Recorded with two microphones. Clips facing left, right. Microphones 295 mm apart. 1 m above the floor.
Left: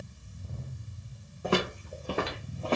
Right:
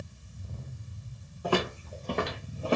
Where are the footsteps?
25° left (ahead or behind), 1.1 m; by 2.8 s 15° right (ahead or behind), 1.0 m.